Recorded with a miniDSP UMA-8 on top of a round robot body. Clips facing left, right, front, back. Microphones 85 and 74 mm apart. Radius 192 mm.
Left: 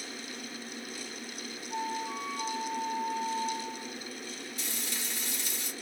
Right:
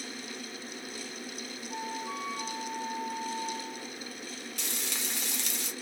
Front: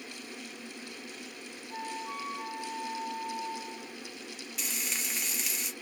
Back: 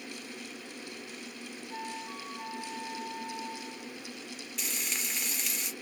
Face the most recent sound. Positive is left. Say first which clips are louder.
# right 2 dB, even
turn(degrees=-90)